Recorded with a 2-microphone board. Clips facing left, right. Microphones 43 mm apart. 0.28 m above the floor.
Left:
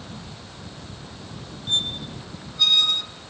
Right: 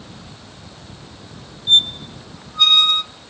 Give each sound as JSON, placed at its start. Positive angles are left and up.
{"t": 1.7, "sound": "a squeak", "side_deg": -60, "distance_m": 1.0}